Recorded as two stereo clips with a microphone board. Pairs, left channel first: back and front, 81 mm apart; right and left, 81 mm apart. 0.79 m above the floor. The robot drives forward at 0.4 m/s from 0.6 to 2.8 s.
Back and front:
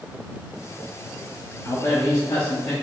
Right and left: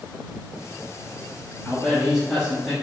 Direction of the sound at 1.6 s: 175° left.